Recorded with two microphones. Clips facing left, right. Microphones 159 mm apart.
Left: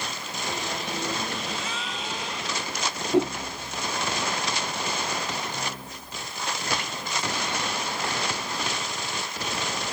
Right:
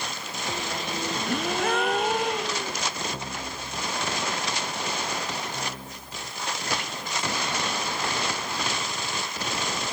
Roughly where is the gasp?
Right.